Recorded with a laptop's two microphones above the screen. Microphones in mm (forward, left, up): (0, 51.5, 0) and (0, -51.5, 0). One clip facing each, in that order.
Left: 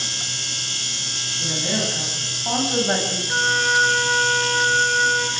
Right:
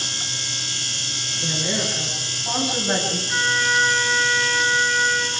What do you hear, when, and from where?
1.4 s a woman speaking: 20° left (ahead or behind), 9 m; by 3.2 s 25° left (ahead or behind), 6.5 m
3.3 s a trumpet: 50° left (ahead or behind), 3.5 m